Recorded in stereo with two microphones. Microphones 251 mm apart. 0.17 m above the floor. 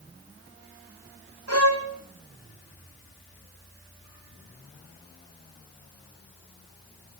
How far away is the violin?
About 3 m.